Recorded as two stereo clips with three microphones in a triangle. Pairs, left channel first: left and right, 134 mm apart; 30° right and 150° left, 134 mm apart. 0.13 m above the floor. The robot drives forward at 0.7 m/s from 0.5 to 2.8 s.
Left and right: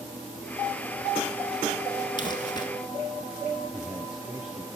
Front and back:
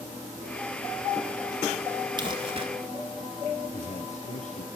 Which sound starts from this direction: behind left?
Crumpling, at 2.2 s.